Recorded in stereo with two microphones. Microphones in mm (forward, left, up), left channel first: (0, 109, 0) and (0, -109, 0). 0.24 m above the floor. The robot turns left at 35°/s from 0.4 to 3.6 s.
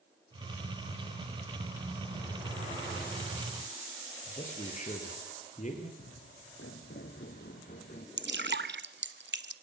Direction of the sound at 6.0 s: 80° left.